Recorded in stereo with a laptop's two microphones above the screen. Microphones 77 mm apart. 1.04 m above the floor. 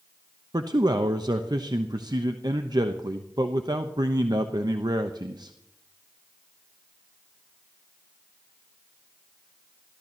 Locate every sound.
0.5 s a man speaking: 60° right (ahead or behind), 0.9 m